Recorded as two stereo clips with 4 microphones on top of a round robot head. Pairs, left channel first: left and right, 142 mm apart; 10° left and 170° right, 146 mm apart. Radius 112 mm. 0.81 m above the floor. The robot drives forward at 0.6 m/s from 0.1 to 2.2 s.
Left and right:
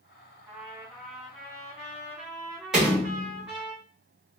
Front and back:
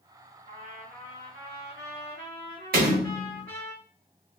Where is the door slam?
175° right, 1.1 m.